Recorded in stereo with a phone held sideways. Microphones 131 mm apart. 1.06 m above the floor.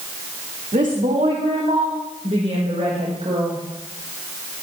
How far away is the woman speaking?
About 2.5 m.